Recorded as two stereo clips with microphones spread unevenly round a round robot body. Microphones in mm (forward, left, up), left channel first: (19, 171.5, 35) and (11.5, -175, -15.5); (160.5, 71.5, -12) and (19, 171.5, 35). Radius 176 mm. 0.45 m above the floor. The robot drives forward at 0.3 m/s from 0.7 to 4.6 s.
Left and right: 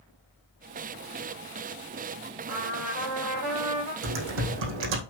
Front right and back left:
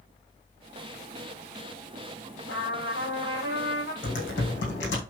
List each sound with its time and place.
2.5 s a trumpet: 95° right, 5.5 m
4.0 s typing on a keyboard: 105° right, 3 m